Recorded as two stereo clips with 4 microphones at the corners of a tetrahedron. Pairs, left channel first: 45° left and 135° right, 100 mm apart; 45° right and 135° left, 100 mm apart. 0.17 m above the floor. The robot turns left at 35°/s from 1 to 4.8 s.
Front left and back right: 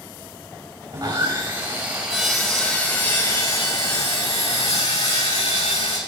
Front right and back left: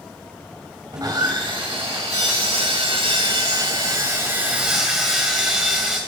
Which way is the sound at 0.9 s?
175° right.